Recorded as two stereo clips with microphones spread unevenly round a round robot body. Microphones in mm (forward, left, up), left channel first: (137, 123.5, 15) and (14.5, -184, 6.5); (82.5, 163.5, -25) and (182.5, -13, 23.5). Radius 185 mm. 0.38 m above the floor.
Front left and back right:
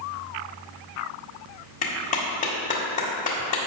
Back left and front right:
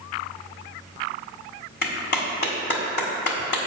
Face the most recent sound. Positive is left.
turn(degrees=135)